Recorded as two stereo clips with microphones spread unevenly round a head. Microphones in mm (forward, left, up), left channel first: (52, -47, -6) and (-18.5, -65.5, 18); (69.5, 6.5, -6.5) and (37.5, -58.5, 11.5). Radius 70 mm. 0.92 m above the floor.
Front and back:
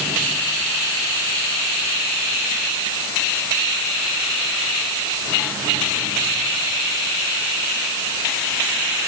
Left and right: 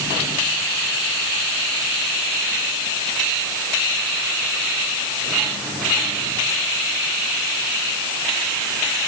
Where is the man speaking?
I don't hear a man speaking.